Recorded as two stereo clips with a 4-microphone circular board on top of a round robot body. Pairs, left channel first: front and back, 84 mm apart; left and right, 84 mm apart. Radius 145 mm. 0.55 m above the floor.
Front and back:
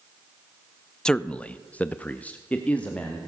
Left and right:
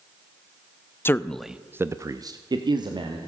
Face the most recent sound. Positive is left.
turn(degrees=-75)